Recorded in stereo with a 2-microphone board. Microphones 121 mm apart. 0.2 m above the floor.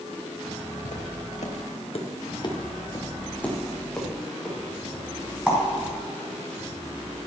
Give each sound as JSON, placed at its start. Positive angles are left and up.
{"t": 0.8, "sound": "footsteps", "side_deg": 85, "distance_m": 2.5}